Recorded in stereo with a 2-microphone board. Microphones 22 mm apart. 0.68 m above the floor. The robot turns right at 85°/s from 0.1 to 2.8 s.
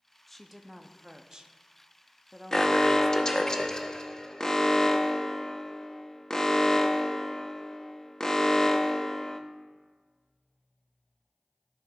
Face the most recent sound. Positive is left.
turn(degrees=30)  # may be behind; listen again after turning